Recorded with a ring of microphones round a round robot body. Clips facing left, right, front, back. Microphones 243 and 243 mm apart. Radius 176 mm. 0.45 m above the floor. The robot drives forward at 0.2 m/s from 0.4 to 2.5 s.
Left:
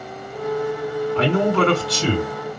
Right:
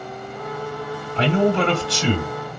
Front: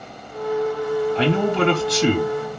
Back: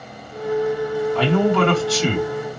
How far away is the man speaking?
About 3.5 m.